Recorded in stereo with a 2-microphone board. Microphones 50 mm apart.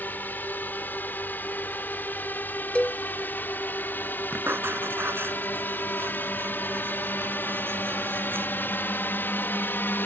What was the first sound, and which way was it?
A drone, 35° left (ahead or behind).